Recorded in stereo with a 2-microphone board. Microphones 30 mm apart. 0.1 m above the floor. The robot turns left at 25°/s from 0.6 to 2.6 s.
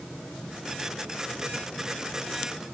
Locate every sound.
Only background noise.